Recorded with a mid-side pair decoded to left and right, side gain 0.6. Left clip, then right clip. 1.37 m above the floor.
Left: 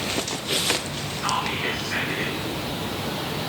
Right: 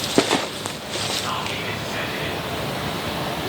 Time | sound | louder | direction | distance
1.2 | whispering | left 1 dB | 50° left | 3 m